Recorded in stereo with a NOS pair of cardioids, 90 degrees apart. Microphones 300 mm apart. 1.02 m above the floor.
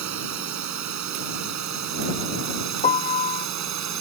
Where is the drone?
70° right; by 4.0 s 65° right.